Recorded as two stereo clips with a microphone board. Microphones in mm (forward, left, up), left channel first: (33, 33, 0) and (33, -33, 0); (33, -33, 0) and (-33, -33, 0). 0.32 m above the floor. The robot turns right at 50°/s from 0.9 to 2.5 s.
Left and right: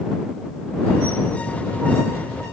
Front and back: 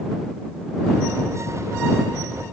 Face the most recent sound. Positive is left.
No sound to turn to.